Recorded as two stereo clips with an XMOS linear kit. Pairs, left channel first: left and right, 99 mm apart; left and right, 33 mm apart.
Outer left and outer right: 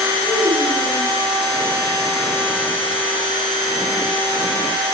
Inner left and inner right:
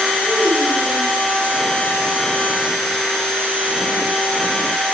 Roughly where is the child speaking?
Right.